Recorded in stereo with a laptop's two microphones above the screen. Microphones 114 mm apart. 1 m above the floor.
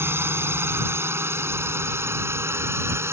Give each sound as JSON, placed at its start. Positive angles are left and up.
{"t": 0.0, "sound": "a drone", "side_deg": -20}